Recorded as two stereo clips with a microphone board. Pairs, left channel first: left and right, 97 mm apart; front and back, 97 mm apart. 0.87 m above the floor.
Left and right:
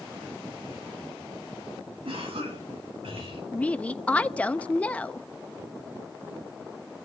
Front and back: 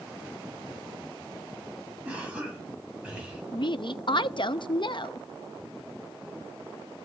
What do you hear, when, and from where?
2.0 s a cough: 105° right, 7 m
3.5 s a woman speaking: 15° left, 0.7 m